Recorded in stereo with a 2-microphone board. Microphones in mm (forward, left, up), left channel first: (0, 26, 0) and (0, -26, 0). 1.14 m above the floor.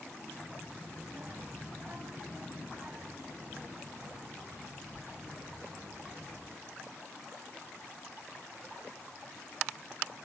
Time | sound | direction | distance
0.3 | a child speaking | 20° right (ahead or behind) | 6 m